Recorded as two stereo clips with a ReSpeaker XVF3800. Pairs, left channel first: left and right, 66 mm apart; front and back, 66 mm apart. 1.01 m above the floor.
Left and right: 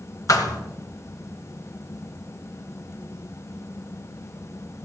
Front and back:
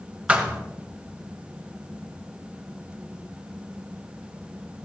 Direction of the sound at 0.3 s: 110° left.